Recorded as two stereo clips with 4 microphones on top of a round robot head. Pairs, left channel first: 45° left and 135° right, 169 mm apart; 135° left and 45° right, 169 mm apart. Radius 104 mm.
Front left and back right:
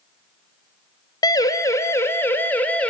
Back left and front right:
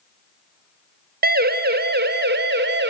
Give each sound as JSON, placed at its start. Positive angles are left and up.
{"t": 1.2, "sound": "a siren", "azimuth_deg": -20, "distance_m": 2.5}